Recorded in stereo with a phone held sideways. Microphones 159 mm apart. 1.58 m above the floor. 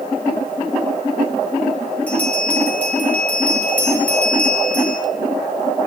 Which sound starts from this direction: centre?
A bell, at 2.1 s.